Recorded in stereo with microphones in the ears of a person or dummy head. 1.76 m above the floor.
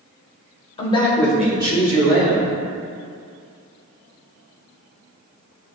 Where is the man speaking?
35° left (ahead or behind), 0.8 m; by 2.6 s 55° right (ahead or behind), 1.1 m.